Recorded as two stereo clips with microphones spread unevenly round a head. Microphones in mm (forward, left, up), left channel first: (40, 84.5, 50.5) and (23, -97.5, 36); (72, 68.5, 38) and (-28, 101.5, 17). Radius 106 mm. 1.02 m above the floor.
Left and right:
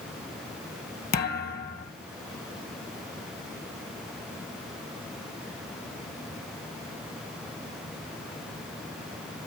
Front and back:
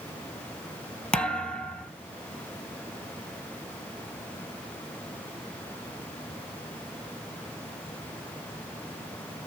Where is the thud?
55° left, 1.9 m.